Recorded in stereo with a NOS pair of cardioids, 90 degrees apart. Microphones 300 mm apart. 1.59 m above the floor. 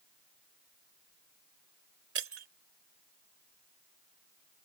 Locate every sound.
2.1 s breaking glass: 50° right